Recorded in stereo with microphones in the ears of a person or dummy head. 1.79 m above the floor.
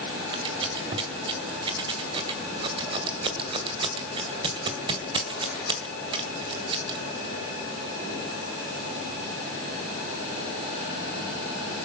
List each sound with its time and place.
0.3 s scissors: 30° right (ahead or behind), 1.8 m